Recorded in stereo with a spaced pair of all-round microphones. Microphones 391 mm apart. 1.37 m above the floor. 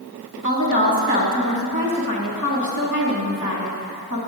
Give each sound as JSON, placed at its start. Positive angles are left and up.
{"t": 0.4, "sound": "a woman speaking", "side_deg": 50, "distance_m": 1.7}